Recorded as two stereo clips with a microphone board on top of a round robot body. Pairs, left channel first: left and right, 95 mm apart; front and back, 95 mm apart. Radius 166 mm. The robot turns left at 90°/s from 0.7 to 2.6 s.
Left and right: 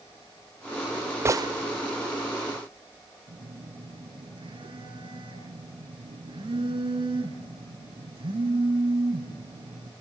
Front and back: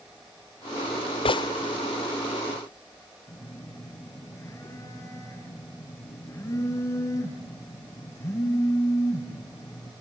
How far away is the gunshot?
About 0.9 m.